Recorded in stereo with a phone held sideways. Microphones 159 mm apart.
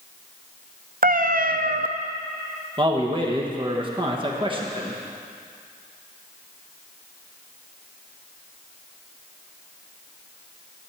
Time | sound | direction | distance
1.0 | a cat meowing | 65° right (ahead or behind) | 0.6 m
2.8 | a man speaking | 30° right (ahead or behind) | 1.1 m